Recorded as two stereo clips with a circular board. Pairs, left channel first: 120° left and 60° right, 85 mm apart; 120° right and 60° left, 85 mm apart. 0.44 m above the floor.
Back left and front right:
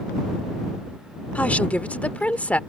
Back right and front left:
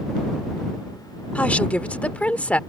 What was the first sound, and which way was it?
A woman speaking, straight behind.